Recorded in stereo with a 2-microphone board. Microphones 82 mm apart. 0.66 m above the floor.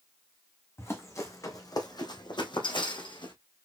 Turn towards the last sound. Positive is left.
turn(degrees=70)  # may be behind; listen again after turning